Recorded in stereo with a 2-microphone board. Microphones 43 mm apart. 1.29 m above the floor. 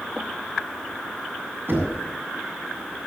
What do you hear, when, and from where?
1.7 s knocking: 55° right (ahead or behind), 6 m